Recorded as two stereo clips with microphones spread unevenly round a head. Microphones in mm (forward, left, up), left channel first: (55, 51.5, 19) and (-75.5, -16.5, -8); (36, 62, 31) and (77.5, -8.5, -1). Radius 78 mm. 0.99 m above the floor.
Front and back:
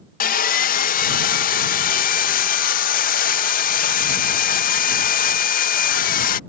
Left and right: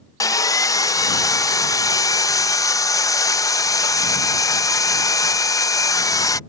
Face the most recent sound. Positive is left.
turn(degrees=65)